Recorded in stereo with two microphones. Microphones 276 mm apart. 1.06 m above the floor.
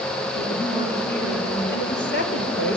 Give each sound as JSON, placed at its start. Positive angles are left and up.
{"t": 0.3, "sound": "a woman speaking", "side_deg": 40, "distance_m": 9.5}
{"t": 1.7, "sound": "a woman speaking", "side_deg": 45, "distance_m": 3.5}